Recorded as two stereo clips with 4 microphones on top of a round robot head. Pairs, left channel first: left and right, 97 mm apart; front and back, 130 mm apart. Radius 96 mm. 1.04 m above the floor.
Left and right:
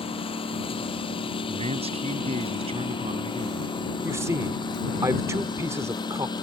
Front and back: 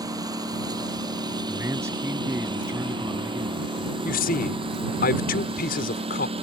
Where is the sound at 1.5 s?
110° right.